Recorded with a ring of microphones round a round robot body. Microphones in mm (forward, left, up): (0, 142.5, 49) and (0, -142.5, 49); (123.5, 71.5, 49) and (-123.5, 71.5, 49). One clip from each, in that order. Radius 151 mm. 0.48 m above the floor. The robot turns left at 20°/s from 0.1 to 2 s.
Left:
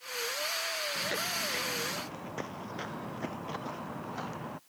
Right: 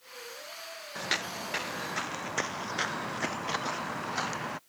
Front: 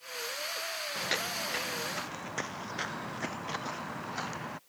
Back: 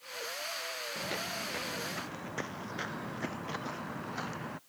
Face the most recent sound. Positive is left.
turn(degrees=-75)